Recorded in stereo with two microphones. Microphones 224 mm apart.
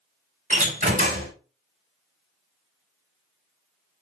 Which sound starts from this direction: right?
A door slam, at 0.5 s.